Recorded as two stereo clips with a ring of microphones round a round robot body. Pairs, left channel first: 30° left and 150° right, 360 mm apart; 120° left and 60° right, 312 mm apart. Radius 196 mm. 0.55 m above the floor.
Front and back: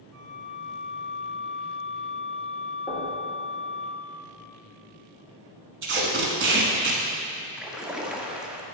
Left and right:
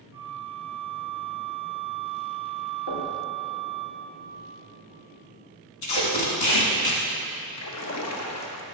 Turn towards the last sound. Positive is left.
turn(degrees=125)